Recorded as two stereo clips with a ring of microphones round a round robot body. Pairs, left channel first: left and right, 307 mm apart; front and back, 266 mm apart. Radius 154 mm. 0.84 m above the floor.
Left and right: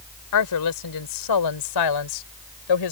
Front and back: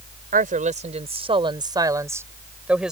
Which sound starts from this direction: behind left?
A woman speaking, at 0.3 s.